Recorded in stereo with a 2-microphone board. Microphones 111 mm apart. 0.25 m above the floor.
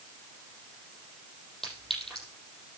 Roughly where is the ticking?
I don't hear ticking.